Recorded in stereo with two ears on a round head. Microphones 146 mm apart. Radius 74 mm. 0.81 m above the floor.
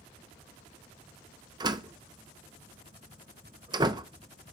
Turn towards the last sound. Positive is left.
turn(degrees=-25)  # may be behind; listen again after turning